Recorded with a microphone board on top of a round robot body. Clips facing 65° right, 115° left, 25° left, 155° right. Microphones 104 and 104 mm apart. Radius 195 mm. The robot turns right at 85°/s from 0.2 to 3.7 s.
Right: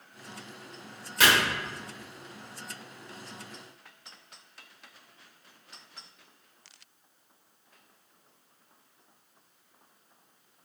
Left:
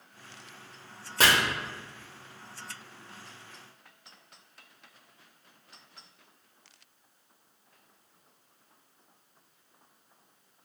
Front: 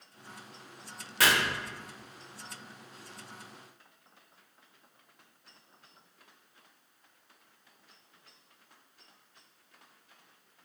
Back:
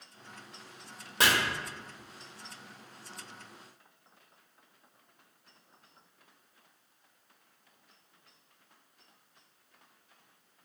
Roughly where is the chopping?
Behind left.